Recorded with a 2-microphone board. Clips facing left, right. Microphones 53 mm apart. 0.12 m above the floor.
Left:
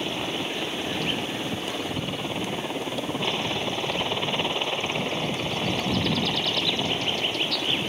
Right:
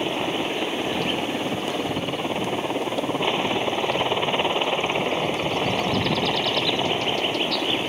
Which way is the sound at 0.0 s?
20° right (ahead or behind).